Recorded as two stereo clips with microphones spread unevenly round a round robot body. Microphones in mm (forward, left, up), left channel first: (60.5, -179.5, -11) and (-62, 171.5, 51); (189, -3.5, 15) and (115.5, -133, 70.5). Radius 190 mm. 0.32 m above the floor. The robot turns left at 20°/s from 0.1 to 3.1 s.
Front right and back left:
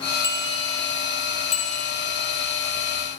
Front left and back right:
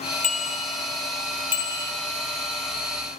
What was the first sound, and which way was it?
A bicycle bell, 30° left.